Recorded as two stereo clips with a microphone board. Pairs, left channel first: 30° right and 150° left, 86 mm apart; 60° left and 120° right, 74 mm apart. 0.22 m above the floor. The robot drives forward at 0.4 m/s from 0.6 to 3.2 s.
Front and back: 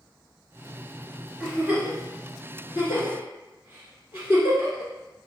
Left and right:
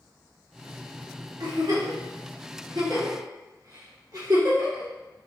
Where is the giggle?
135° right, 1.9 m; by 4.9 s 150° right, 2.5 m.